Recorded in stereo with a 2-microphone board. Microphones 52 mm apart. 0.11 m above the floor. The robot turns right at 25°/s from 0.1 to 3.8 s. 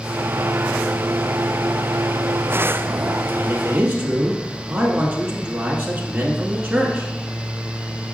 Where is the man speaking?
20° right (ahead or behind), 1.3 m; by 7.1 s 15° right (ahead or behind), 1.3 m.